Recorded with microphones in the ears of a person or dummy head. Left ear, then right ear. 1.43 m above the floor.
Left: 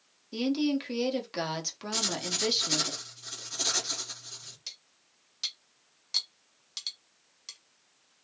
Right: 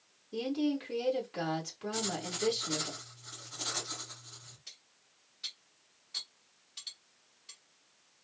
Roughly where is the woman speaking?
Left.